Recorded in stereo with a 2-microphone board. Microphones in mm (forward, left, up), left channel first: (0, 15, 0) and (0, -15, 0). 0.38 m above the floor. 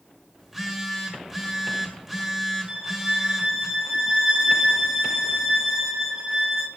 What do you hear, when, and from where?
0.4 s a phone buzzing: 10° right (ahead or behind), 1.8 m
2.7 s a violin: 20° right (ahead or behind), 1.4 m